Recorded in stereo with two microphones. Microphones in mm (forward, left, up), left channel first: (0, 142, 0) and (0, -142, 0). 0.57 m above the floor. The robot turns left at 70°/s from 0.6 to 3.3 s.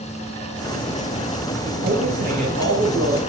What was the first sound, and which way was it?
A man speaking, 15° right.